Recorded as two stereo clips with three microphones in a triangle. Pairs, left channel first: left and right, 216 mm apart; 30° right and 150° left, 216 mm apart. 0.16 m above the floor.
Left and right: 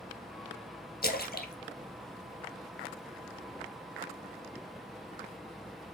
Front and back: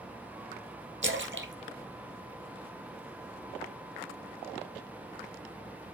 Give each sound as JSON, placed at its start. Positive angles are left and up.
{"t": 1.0, "sound": "a splash", "azimuth_deg": 130, "distance_m": 1.4}